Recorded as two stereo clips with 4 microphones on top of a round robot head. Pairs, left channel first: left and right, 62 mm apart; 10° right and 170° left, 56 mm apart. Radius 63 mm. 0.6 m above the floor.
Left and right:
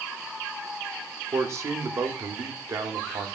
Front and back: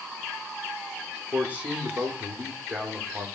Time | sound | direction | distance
1.3 | a man speaking | 125° right | 1.7 m